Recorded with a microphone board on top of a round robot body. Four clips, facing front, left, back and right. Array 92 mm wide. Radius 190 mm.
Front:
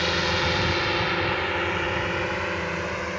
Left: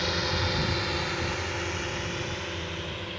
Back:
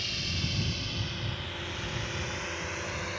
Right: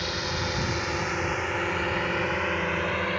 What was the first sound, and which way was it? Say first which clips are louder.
A drone: left 1 dB, front 13 dB; straight ahead.